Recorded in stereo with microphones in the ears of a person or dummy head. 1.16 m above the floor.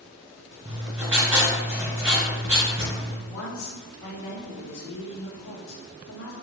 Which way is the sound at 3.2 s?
75° left (ahead or behind).